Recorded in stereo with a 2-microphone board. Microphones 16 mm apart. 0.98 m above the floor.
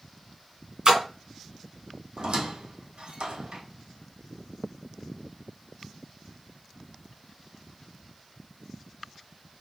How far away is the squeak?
About 1.0 m.